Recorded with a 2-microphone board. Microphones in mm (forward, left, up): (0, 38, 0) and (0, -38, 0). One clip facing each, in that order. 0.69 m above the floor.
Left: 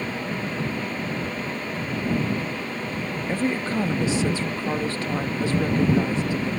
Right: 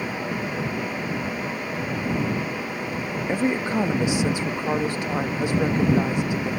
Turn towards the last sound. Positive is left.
turn(degrees=-15)  # may be behind; listen again after turning